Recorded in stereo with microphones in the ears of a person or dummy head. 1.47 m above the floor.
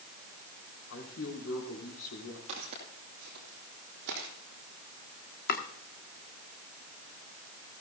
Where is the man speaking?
85° left, 5 m.